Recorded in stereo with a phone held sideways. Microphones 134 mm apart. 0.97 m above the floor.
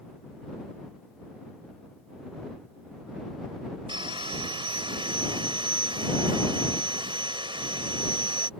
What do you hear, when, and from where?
3.9 s sawing: 40° right (ahead or behind)